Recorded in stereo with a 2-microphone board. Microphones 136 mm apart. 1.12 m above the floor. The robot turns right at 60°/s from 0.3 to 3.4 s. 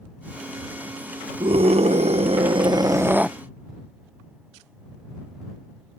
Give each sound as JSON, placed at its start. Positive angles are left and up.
{"t": 1.4, "sound": "a scream", "azimuth_deg": -125}